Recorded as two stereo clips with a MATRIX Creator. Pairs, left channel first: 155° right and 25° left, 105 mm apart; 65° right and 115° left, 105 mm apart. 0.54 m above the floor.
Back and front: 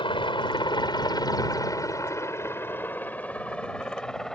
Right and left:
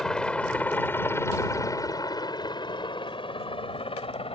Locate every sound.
0.0 s a helicopter: 150° right; by 4.3 s 70° right